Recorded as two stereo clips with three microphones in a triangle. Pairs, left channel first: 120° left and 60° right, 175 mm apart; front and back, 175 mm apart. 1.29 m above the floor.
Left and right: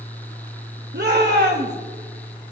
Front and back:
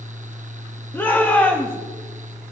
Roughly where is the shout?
Right.